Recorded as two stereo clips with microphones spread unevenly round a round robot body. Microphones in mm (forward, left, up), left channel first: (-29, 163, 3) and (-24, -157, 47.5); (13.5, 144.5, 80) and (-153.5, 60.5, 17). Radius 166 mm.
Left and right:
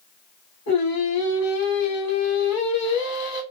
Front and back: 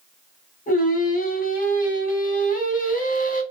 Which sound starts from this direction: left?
Singing, at 0.7 s.